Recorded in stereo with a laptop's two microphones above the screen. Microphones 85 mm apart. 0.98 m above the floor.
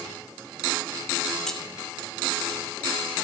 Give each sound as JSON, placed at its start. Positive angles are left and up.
{"t": 1.5, "sound": "keys jangling", "side_deg": 5, "distance_m": 0.8}